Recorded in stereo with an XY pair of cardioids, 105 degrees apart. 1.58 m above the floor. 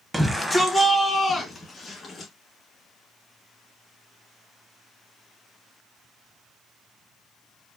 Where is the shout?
5° right, 1.1 m; by 2.3 s 35° left, 2.5 m.